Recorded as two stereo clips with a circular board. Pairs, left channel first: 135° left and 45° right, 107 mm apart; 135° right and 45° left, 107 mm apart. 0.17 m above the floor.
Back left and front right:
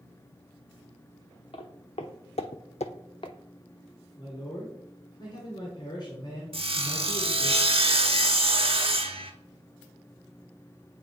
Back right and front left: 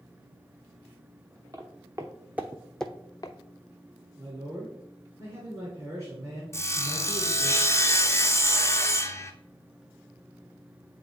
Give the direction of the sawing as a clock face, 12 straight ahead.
2 o'clock.